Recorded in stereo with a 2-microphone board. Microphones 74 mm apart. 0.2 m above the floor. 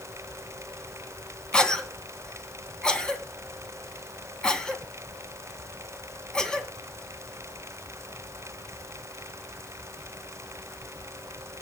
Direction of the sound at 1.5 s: 10° left (ahead or behind).